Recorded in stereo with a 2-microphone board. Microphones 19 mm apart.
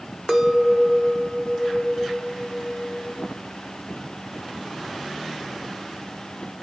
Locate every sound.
0.3 s a clink: centre (ahead or behind), 0.8 m